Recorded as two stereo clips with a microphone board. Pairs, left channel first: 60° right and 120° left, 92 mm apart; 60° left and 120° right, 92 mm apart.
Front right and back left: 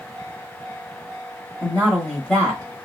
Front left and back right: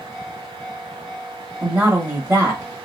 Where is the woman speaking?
105° right, 0.9 m.